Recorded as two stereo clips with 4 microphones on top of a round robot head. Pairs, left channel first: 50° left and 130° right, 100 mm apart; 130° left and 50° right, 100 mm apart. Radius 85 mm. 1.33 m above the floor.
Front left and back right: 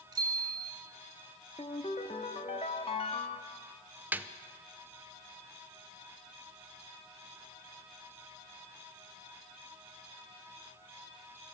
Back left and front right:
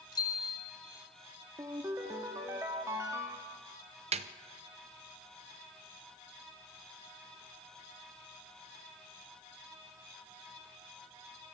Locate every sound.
0.1 s a bicycle bell: straight behind, 4 m
1.6 s a ringtone: 15° left, 1.1 m
4.1 s a snare drum: 55° right, 0.8 m